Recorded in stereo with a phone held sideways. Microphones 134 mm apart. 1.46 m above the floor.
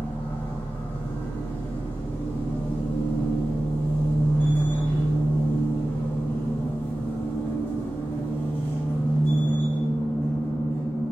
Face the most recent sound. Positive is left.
turn(degrees=15)  # may be behind; listen again after turning